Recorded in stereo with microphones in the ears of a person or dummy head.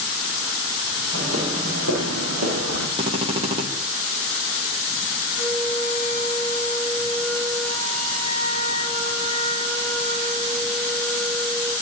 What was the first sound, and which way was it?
Footsteps, 75° right (ahead or behind).